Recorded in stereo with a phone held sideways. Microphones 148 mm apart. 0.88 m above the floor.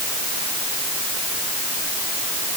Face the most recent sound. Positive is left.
No sound to turn to.